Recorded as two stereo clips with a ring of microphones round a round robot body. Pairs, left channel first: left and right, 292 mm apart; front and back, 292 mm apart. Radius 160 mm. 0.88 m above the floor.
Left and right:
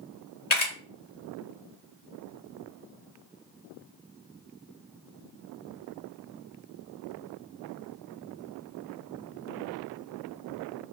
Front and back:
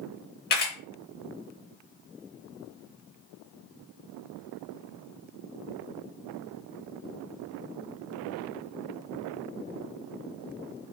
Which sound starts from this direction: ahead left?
A camera shutter, at 0.5 s.